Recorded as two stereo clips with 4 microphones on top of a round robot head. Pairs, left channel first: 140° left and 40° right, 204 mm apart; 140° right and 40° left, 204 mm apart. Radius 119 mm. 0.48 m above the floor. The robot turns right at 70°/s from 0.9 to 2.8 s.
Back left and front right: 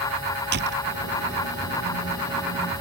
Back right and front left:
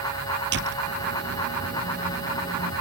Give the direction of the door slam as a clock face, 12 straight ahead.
12 o'clock.